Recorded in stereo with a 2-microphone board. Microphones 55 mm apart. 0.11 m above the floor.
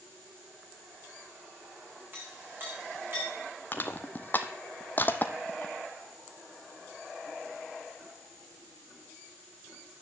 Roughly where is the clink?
Right.